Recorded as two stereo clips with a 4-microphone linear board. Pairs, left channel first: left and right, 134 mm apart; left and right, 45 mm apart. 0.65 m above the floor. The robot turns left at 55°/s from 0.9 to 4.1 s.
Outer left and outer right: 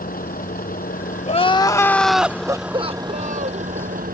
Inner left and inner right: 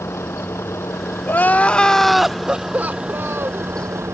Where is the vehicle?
90° left; by 4.2 s 85° right.